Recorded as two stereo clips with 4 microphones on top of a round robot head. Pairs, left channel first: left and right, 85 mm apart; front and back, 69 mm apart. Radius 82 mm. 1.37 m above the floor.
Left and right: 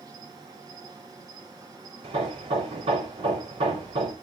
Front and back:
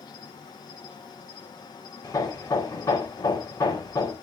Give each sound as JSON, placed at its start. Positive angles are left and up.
{"t": 0.0, "sound": "an insect", "azimuth_deg": -35, "distance_m": 2.0}
{"t": 2.0, "sound": "hammering", "azimuth_deg": -60, "distance_m": 4.5}